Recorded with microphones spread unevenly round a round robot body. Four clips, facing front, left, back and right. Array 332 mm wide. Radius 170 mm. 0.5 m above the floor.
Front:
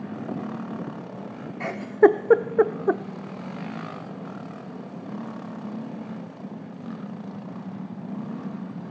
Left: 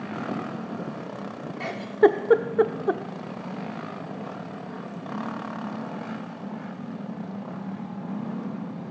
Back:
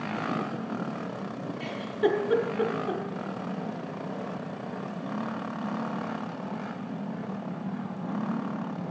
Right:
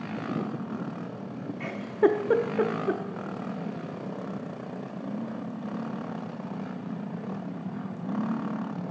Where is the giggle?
10° left, 0.6 m.